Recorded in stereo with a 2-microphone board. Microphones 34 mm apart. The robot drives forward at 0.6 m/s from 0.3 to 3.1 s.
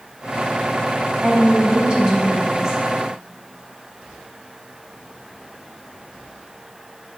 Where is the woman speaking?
35° right (ahead or behind), 0.7 m; by 2.8 s 20° right (ahead or behind), 1.3 m.